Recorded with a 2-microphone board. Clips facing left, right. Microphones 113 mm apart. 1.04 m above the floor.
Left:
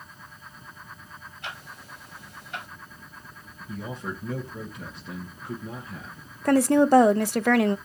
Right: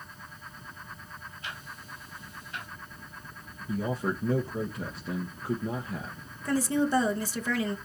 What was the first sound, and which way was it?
Ticking, 75° left (ahead or behind).